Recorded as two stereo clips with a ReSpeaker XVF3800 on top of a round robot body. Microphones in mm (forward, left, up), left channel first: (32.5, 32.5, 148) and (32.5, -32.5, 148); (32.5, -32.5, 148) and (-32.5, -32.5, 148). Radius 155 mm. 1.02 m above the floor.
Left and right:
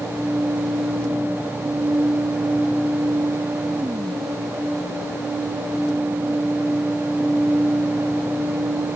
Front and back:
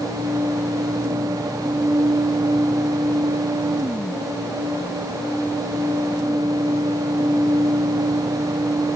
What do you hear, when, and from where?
Only background noise.